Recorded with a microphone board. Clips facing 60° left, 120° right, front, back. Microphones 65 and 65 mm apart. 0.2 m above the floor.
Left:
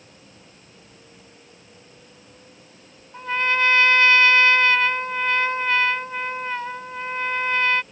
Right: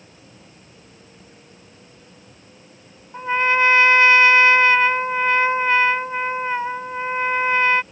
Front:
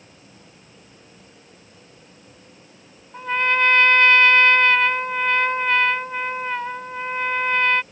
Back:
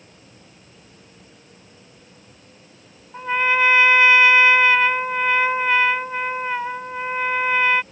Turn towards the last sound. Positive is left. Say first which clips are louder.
# right 4 dB, back 1 dB
turn(degrees=-110)